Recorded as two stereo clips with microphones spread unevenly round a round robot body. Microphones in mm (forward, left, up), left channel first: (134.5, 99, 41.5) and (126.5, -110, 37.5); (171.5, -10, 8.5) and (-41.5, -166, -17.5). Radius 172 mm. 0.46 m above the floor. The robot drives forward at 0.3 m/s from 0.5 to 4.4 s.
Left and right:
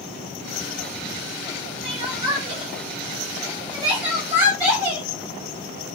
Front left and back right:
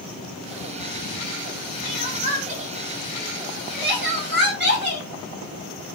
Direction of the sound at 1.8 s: 120° right.